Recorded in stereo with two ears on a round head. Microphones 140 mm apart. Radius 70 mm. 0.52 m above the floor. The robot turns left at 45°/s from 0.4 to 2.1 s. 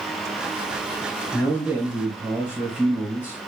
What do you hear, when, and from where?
1.3 s a man speaking: 25° left, 1.9 m; by 3.5 s 10° right, 1.9 m